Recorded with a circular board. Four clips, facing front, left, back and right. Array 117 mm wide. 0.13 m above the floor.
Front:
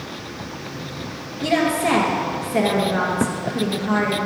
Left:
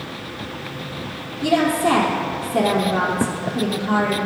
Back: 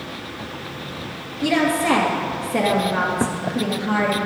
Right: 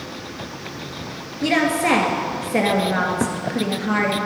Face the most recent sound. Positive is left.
turn(degrees=-95)